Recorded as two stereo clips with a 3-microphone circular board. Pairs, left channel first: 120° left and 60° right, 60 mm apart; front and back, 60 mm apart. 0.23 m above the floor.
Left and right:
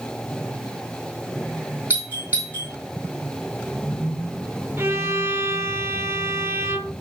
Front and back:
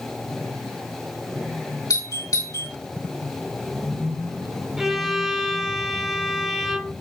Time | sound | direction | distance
1.9 | a doorbell | straight ahead | 6 m
4.8 | a violin | 95° right | 1.9 m